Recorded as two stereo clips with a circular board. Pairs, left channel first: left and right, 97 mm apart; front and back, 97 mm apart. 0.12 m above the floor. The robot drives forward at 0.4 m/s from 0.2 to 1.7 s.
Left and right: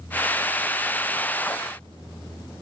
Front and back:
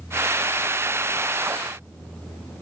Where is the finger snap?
I don't hear a finger snap.